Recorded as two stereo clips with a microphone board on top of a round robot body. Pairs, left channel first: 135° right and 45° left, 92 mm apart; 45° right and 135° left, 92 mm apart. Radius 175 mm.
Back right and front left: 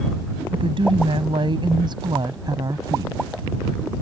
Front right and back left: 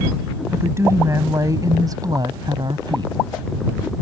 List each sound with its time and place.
0.5 s a woman speaking: 70° left; by 3.2 s 95° left